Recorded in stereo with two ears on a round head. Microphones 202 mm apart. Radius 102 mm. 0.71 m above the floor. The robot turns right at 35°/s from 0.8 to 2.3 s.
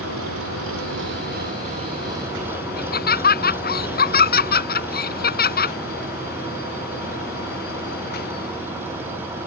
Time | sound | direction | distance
0.0 | an engine running | 60° right | ?
2.8 | laughter | 45° left (ahead or behind) | ?